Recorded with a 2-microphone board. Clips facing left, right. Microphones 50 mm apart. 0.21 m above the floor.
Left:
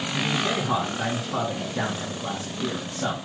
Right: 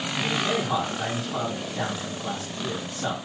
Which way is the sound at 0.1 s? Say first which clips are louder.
Even; 50° left (ahead or behind).